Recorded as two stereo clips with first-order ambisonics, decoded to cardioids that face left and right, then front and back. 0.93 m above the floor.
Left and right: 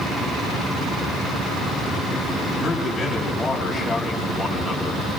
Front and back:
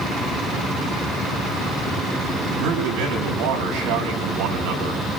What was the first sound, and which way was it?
A man speaking, 175° left.